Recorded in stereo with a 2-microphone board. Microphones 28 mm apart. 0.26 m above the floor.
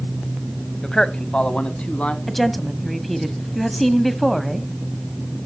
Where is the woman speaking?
Centre (ahead or behind), 1.4 m.